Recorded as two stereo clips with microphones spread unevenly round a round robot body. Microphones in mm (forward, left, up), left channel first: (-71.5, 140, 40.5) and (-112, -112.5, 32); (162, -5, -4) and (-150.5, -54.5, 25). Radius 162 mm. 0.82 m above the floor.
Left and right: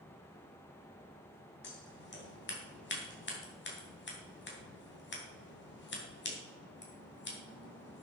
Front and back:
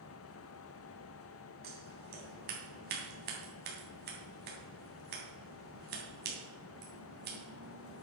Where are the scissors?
125° left, 3 m.